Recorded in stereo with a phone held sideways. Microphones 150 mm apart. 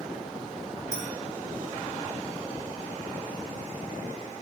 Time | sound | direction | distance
0.9 | a clink | 25° left (ahead or behind) | 2.5 m